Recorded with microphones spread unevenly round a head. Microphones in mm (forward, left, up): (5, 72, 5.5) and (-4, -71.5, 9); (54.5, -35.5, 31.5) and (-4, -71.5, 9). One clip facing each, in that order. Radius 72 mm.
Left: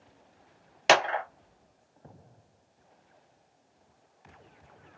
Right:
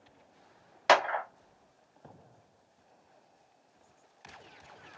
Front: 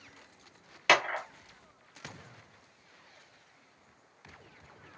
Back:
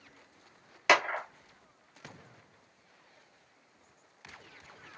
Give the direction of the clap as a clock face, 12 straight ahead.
9 o'clock.